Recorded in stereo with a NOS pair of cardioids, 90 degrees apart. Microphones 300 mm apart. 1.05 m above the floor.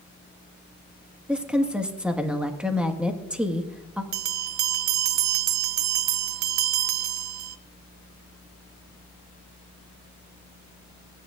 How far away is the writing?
No writing in this recording.